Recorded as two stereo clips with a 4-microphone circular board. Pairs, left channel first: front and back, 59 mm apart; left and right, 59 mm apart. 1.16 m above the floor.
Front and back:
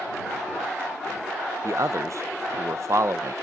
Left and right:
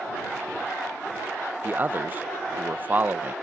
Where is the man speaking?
145° right.